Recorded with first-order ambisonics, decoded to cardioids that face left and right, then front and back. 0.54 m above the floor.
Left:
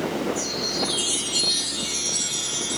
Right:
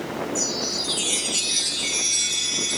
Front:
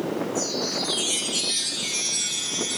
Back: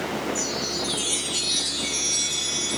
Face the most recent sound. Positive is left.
turn(degrees=-90)